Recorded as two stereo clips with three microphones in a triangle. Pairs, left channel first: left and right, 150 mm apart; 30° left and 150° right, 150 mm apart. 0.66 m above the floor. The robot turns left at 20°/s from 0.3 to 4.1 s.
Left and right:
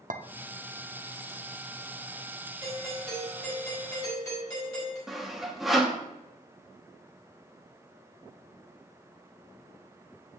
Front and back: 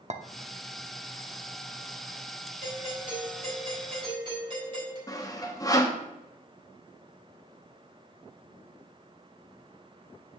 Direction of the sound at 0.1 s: 110° right.